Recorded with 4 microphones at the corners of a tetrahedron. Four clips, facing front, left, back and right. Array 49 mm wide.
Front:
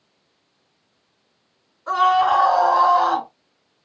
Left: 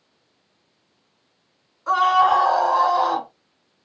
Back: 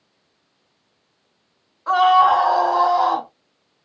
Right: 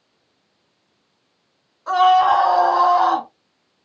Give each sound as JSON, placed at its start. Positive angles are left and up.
{"t": 1.9, "sound": "a scream", "azimuth_deg": 175, "distance_m": 1.9}